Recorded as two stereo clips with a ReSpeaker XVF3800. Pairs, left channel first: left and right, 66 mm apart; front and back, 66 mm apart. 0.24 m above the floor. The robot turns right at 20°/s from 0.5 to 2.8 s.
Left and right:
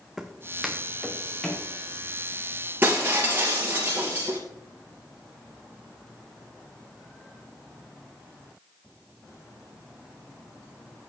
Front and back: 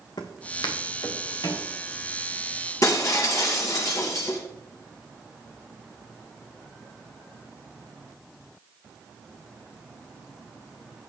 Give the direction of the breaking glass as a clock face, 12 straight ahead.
1 o'clock.